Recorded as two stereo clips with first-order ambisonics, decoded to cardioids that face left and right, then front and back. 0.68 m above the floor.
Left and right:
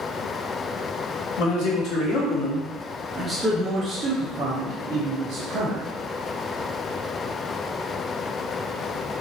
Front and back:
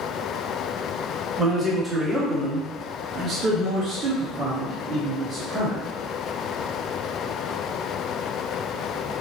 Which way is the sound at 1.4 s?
85° left.